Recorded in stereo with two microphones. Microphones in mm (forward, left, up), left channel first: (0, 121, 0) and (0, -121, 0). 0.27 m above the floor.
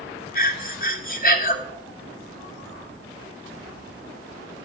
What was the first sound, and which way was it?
Breathing, 35° left (ahead or behind).